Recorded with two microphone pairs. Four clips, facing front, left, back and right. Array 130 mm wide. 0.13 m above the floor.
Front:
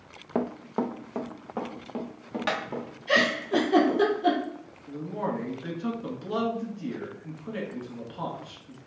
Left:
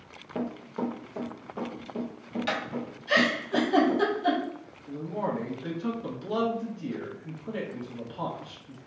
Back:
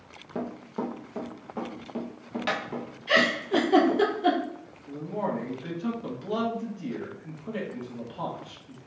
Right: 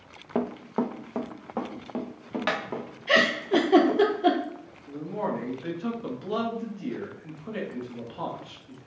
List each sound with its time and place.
0.3 s running footsteps: 40° right, 0.6 m; by 4.0 s 80° right, 2.5 m
3.1 s a giggle: 95° right, 1.0 m
4.9 s a man speaking: 25° right, 1.1 m